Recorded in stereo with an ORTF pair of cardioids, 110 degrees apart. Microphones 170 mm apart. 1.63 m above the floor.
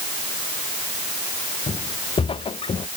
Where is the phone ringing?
No phone ringing in this recording.